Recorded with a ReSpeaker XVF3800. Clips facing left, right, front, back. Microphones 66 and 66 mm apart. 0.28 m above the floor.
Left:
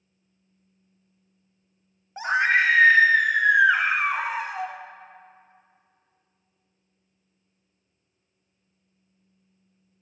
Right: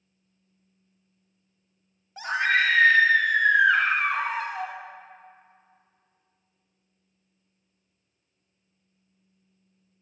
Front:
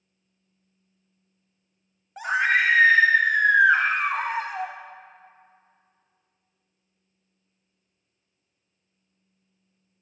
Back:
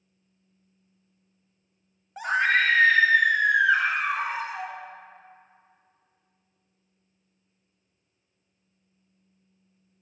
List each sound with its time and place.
2.2 s a scream: 90° left, 1.0 m; by 4.7 s 10° left, 1.7 m